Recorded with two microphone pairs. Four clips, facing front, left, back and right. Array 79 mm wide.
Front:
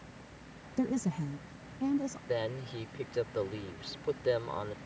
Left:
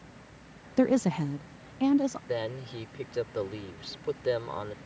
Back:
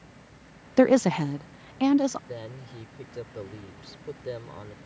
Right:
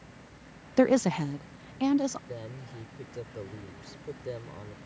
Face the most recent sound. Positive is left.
turn(degrees=60)